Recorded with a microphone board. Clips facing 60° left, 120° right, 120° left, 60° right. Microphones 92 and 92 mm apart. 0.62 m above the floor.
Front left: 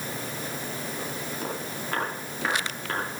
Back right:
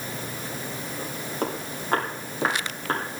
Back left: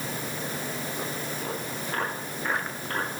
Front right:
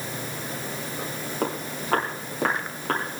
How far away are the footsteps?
About 7.5 m.